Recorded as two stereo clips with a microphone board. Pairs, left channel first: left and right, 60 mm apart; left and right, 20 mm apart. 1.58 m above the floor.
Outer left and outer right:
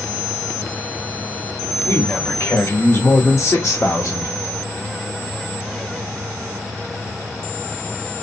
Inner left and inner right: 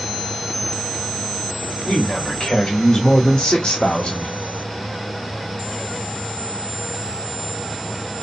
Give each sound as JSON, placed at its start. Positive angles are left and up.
{"t": 1.9, "sound": "a man speaking", "side_deg": 50, "distance_m": 2.5}